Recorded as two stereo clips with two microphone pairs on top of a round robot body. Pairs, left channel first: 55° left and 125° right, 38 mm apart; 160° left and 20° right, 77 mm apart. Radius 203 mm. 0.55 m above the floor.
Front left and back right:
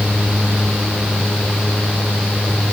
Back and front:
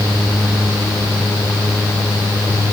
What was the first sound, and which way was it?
Only background noise.